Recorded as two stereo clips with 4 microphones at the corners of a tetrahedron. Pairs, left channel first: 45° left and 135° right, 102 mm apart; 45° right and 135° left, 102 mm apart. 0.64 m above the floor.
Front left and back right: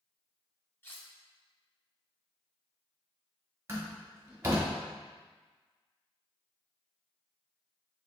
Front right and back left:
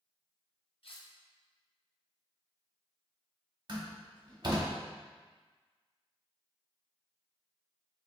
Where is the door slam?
160° left, 1.1 m.